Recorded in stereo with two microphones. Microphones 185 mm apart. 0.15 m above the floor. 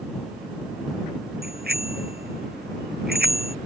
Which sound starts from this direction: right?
A bicycle bell, at 1.4 s.